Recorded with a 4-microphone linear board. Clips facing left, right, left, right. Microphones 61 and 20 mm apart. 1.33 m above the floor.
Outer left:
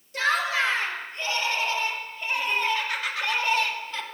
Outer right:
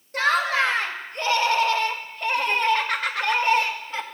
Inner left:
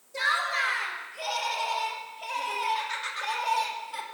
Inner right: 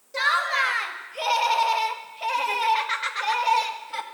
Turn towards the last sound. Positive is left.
turn(degrees=-40)  # may be behind; listen again after turning